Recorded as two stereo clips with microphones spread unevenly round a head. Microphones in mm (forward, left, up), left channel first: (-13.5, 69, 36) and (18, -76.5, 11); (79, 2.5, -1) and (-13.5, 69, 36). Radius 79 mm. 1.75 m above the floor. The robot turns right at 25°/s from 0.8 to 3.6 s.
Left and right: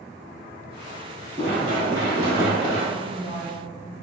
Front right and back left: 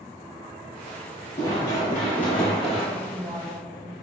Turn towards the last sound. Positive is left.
turn(degrees=110)